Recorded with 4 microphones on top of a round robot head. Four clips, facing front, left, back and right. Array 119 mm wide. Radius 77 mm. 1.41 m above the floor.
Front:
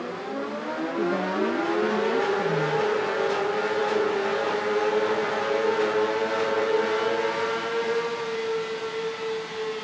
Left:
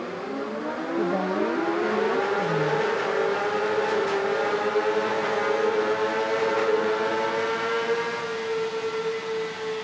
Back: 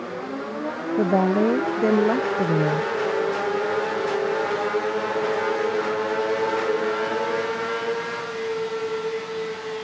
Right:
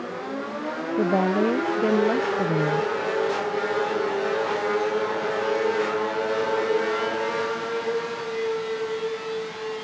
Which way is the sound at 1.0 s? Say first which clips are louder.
Right 4 dB, back 7 dB; 150° right.